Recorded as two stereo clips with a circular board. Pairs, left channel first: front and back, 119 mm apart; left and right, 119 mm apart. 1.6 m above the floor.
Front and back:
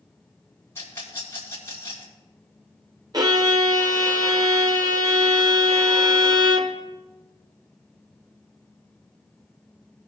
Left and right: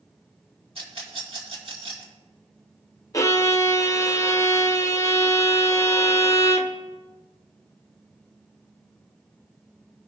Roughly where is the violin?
Behind left.